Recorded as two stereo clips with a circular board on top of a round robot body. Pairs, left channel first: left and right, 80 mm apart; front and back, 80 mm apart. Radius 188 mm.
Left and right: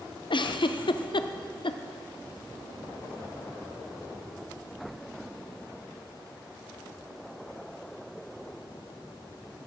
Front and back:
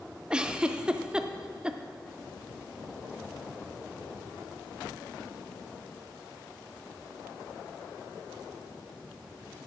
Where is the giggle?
100° left, 0.5 m.